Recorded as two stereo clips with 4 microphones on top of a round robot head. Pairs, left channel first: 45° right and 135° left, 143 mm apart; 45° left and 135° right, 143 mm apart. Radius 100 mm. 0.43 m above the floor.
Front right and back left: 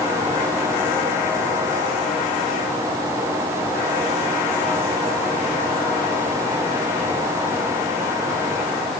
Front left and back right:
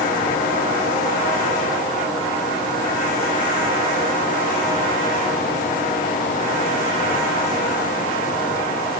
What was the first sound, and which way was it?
Only background noise.